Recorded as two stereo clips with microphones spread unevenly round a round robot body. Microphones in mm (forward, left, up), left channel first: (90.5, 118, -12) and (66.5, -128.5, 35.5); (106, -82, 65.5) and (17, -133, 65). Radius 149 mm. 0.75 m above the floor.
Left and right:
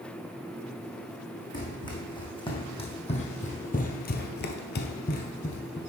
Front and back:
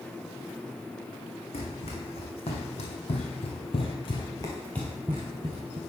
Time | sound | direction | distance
1.5 | running footsteps | 5° left | 2.5 m